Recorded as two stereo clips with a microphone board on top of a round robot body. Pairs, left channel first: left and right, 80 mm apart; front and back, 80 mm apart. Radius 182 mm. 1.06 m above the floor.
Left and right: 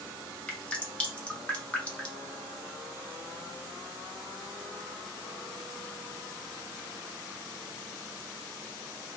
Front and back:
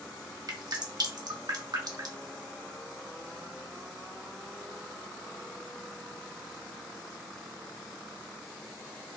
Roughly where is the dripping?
Behind.